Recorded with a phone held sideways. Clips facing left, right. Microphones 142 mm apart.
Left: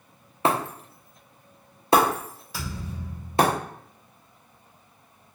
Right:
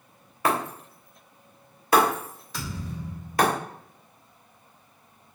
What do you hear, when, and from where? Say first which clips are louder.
0.5 s breaking glass: left 2 dB; 25° left (ahead or behind), 0.6 m
2.5 s a thud: right 1 dB; 5° left (ahead or behind), 1.9 m